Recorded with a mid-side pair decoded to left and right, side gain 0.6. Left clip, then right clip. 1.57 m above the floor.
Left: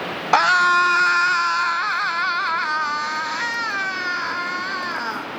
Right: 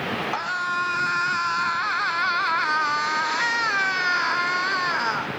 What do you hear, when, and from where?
0.3 s a scream: 55° left, 0.9 m; by 5.3 s 20° right, 3 m